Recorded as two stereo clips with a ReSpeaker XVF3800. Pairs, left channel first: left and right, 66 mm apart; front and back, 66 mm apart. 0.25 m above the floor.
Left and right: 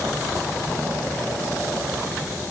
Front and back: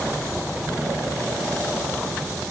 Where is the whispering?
I don't hear whispering.